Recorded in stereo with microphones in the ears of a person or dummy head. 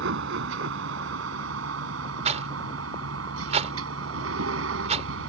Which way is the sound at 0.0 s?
70° right (ahead or behind).